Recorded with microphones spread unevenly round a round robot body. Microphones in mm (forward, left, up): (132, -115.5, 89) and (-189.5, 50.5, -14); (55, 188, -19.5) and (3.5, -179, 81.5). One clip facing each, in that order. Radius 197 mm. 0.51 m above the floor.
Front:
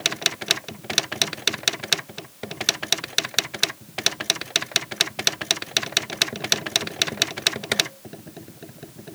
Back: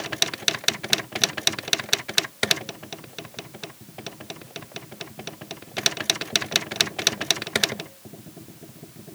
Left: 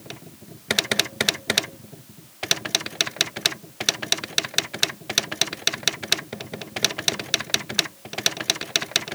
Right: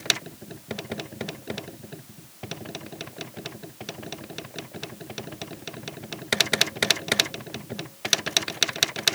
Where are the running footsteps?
I don't hear running footsteps.